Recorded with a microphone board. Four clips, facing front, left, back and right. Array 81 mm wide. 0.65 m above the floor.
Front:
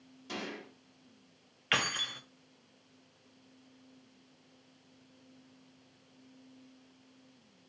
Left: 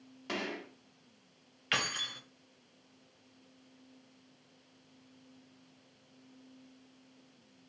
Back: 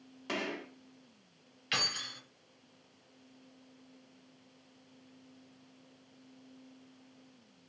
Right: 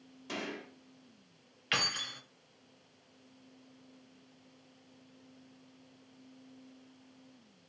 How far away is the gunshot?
About 1.0 m.